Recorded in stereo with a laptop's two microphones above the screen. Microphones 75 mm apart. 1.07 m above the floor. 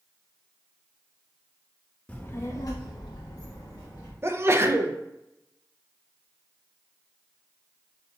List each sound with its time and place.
2.1 s a child speaking: 20° left (ahead or behind), 0.5 m; by 4.1 s 55° left (ahead or behind), 1.0 m
4.2 s a sneeze: 35° right (ahead or behind), 0.7 m